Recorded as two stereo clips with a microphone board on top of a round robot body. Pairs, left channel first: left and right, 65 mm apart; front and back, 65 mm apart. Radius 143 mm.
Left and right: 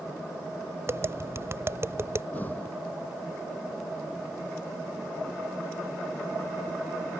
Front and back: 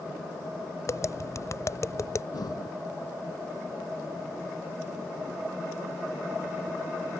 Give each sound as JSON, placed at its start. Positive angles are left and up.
{"t": 0.9, "sound": "tapping", "azimuth_deg": -40}
{"t": 2.3, "sound": "breathing", "azimuth_deg": 25}